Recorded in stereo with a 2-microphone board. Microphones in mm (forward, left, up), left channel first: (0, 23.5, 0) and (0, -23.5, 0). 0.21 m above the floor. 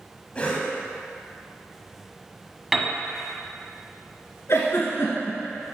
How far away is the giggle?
About 1.7 m.